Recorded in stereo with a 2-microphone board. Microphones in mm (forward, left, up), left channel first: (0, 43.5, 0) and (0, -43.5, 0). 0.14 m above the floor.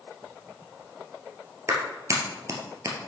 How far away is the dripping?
I don't hear dripping.